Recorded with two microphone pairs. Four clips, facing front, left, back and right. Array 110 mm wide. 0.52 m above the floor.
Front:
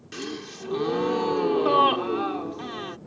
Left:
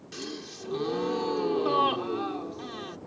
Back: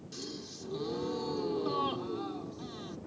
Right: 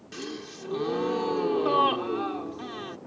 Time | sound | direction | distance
0.1 | a gasp | 5° right | ?